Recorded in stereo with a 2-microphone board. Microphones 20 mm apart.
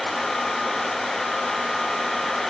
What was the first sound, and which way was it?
Only background noise.